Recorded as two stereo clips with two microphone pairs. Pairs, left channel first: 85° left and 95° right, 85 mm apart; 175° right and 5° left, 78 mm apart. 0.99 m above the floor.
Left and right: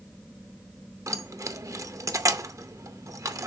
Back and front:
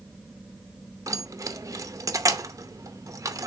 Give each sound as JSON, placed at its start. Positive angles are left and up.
{"t": 1.1, "sound": "keys jangling", "azimuth_deg": -40, "distance_m": 0.6}